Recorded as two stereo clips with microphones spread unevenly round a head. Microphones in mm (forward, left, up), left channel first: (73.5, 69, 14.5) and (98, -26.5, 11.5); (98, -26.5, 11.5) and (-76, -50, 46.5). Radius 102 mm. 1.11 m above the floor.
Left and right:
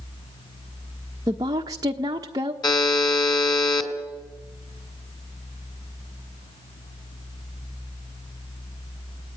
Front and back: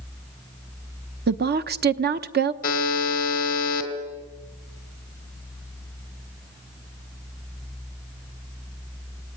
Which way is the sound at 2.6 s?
60° left.